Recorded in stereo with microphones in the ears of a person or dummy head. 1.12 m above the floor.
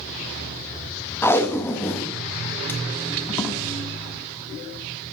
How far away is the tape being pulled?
About 0.6 m.